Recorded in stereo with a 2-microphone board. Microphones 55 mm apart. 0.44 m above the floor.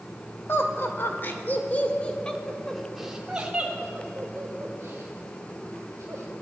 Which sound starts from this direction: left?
Laughter, at 0.5 s.